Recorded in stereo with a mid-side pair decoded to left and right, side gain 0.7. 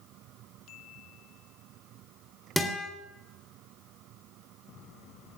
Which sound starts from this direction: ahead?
A guitar, at 2.6 s.